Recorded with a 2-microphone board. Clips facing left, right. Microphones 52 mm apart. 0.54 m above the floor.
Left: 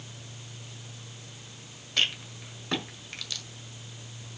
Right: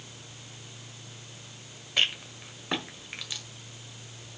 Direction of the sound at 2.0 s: 15° right (ahead or behind).